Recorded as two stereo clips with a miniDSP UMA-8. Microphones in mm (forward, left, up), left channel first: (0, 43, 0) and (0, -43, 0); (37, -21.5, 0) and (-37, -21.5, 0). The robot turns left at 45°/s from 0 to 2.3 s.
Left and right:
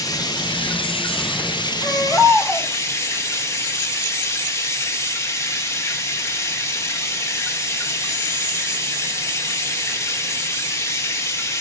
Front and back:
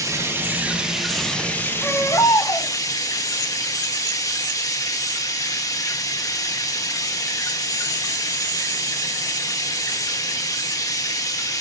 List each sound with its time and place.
0.0 s running water: 140° left, 1.2 m; by 11.6 s 35° left, 1.2 m
1.8 s a baby crying: 50° left, 4 m; by 2.7 s 30° left, 4 m